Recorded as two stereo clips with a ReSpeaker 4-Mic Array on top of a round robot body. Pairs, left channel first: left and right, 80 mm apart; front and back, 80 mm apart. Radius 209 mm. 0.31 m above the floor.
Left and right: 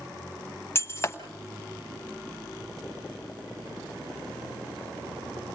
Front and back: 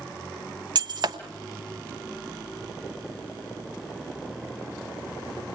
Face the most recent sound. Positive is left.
turn(degrees=150)